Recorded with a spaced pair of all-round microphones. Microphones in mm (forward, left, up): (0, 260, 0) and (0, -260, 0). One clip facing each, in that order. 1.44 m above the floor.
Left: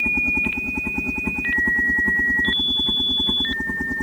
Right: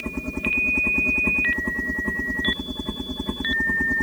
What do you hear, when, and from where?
0.0 s a helicopter: 10° left (ahead or behind); by 4.0 s centre (ahead or behind)